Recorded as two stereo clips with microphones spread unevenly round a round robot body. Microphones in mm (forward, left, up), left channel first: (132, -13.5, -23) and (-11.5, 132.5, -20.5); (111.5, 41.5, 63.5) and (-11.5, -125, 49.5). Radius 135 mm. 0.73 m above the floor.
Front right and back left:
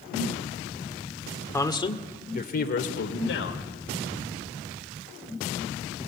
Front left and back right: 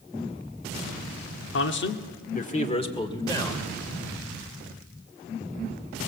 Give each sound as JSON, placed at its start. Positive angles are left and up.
{"t": 1.5, "sound": "a man speaking", "azimuth_deg": 30, "distance_m": 1.7}